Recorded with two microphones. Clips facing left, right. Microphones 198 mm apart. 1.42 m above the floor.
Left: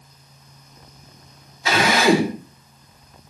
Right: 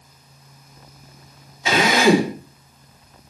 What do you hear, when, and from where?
1.6 s a drill: 20° right (ahead or behind), 5 m